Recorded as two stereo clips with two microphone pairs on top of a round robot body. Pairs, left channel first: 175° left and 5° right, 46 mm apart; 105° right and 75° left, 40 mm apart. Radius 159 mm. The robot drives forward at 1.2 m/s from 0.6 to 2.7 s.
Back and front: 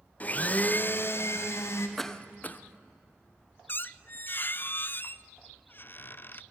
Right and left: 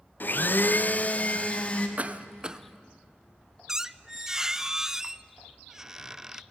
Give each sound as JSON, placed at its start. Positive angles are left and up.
{"t": 0.2, "sound": "a blender", "azimuth_deg": -130, "distance_m": 0.8}
{"t": 2.0, "sound": "a cough", "azimuth_deg": 80, "distance_m": 1.0}
{"t": 3.7, "sound": "a squeak", "azimuth_deg": 150, "distance_m": 0.5}